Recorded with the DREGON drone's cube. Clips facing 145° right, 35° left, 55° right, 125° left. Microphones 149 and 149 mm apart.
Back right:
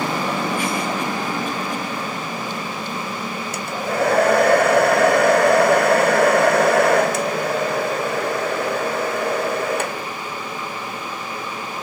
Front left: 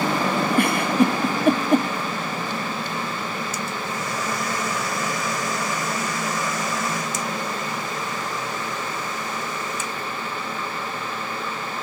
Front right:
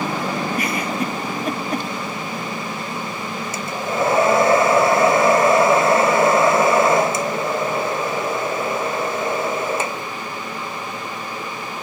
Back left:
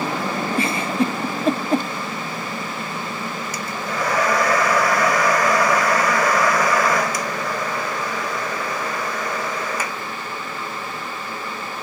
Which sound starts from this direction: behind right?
A hair dryer, at 3.5 s.